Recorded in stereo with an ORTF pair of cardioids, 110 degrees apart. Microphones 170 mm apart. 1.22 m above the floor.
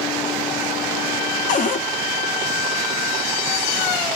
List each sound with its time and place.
1.5 s a cupboard door: 50° left, 0.6 m